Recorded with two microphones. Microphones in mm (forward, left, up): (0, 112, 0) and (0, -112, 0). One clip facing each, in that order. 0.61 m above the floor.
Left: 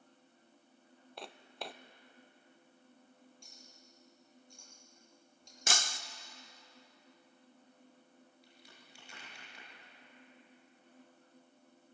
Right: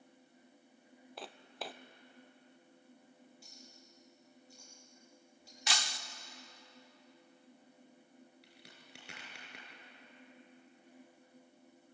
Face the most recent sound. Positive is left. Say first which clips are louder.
# right 1 dB
turn(degrees=-80)